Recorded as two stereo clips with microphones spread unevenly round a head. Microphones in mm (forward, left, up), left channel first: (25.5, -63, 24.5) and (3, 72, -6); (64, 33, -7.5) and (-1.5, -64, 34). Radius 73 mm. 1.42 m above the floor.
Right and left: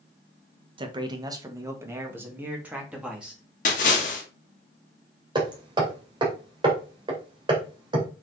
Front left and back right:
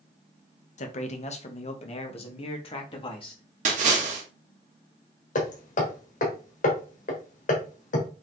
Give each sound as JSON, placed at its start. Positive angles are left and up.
{"t": 0.8, "sound": "a man speaking", "azimuth_deg": 45, "distance_m": 1.6}
{"t": 3.6, "sound": "a splash", "azimuth_deg": -115, "distance_m": 2.0}
{"t": 5.3, "sound": "hammering", "azimuth_deg": 40, "distance_m": 2.5}